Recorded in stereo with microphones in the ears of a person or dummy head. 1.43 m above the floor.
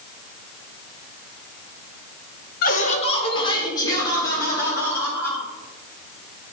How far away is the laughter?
About 0.9 m.